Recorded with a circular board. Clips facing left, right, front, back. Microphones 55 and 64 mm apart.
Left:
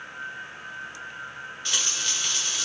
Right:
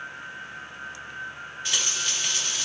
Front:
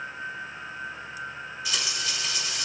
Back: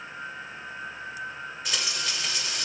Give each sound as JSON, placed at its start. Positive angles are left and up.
{"t": 1.6, "sound": "frying", "azimuth_deg": -170, "distance_m": 2.5}